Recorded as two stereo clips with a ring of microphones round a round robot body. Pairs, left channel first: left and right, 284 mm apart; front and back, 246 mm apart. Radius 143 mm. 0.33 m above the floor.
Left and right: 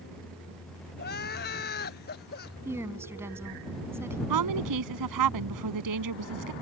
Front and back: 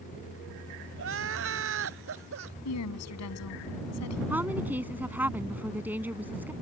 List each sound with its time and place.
1.0 s crying: 150° left
2.6 s a woman speaking: 10° right
4.3 s a woman speaking: 95° right